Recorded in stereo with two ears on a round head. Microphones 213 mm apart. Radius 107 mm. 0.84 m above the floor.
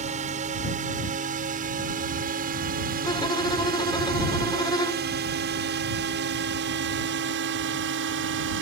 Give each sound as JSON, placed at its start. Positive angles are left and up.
{"t": 0.0, "sound": "a drone", "side_deg": -30}
{"t": 3.0, "sound": "a violin", "side_deg": 20}